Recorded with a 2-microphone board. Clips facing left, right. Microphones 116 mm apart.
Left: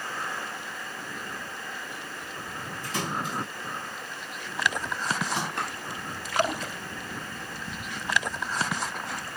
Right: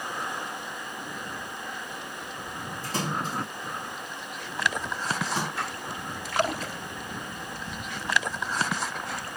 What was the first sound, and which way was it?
A splash, 35° right (ahead or behind).